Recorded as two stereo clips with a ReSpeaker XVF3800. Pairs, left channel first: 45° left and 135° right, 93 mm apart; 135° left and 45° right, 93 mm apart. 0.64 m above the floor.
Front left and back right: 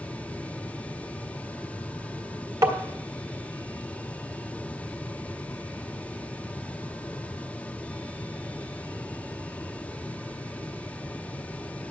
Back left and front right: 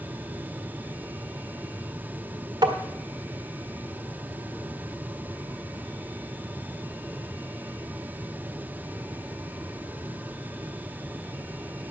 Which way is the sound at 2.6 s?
85° right.